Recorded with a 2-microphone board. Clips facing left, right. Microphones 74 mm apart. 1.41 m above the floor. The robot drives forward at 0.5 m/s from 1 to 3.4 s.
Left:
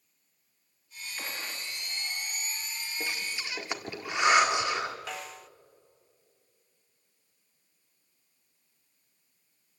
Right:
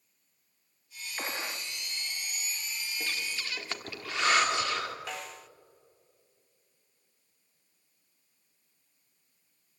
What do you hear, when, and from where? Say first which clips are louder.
1.2 s a gunshot: right 3 dB; 25° right (ahead or behind), 0.9 m
3.0 s breathing: left 1 dB; 15° left (ahead or behind), 1.8 m
5.1 s a snare drum: left 1 dB; centre (ahead or behind), 0.5 m